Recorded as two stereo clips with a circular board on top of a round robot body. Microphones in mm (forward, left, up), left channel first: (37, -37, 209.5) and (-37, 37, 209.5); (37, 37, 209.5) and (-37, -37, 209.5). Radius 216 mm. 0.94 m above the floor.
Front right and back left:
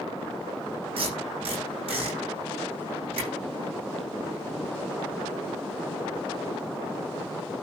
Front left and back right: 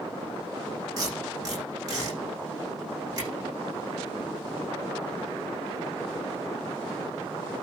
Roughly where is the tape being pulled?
Behind.